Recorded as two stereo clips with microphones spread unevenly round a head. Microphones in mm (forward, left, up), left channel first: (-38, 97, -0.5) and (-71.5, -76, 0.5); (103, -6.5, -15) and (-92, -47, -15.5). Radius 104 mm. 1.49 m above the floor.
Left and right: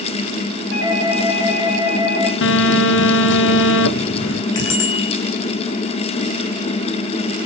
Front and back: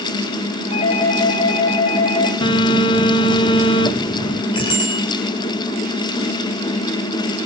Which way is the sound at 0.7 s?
75° left.